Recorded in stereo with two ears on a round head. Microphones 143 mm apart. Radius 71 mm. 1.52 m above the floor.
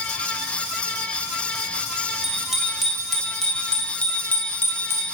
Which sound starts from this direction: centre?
A bicycle bell, at 2.2 s.